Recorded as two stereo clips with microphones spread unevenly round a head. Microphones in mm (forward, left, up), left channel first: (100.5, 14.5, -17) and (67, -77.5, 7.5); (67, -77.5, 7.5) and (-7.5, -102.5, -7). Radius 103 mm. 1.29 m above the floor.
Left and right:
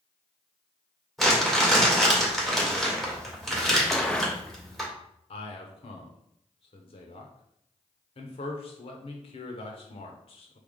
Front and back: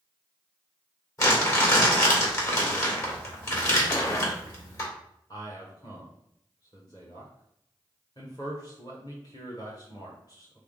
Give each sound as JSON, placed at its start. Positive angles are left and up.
{"t": 1.2, "sound": "crumpling", "azimuth_deg": -20, "distance_m": 2.5}
{"t": 3.9, "sound": "a gunshot", "azimuth_deg": -20, "distance_m": 0.8}
{"t": 5.3, "sound": "a man speaking", "azimuth_deg": 90, "distance_m": 0.8}